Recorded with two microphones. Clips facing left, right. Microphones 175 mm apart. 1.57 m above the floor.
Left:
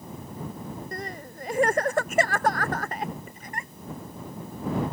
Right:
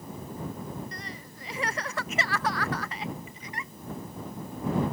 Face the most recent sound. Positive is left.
turn(degrees=50)  # may be behind; listen again after turning